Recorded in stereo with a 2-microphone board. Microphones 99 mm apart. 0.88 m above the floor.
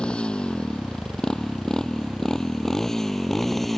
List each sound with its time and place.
0.0 s a motorcycle: 10° left (ahead or behind); by 3.8 s centre (ahead or behind)